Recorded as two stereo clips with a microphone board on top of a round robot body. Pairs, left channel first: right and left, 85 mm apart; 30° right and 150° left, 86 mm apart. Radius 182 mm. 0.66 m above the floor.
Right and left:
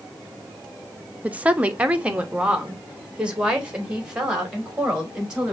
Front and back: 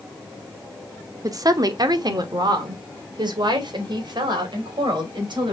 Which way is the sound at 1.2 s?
155° left.